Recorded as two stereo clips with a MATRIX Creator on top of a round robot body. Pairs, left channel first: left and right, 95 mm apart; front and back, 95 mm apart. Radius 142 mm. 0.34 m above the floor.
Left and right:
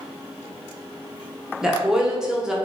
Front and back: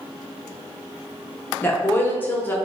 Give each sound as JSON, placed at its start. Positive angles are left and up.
{"t": 1.6, "sound": "a woman speaking", "azimuth_deg": -20, "distance_m": 0.9}